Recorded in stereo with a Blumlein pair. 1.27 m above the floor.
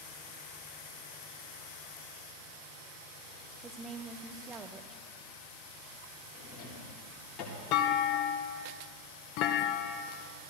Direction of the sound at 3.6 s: 20° right.